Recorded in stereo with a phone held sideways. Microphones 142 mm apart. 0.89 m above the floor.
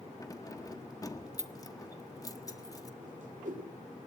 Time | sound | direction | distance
0.2 | keys jangling | 25° left (ahead or behind) | 1.3 m
3.0 | a whoosh | 75° right (ahead or behind) | 2.5 m